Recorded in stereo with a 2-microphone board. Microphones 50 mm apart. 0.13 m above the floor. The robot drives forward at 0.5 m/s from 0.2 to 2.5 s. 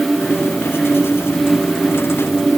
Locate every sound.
Only background noise.